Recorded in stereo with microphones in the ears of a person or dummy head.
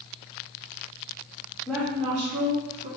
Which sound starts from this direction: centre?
A woman speaking, at 1.7 s.